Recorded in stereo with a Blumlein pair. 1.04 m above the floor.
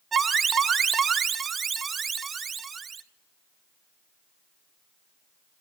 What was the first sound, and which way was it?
An alarm, 20° right.